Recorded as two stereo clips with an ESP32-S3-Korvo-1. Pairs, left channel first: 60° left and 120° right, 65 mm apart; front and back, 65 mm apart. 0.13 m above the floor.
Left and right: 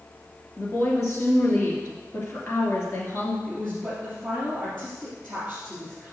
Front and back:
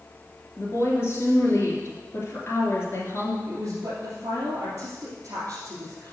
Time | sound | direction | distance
0.6 | a woman speaking | 35° left | 2.5 m
3.5 | a woman speaking | 140° left | 2.5 m